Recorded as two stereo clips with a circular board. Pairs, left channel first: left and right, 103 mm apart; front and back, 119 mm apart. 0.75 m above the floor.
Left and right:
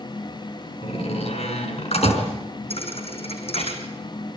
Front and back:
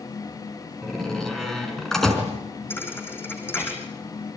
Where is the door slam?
85° left, 5 m.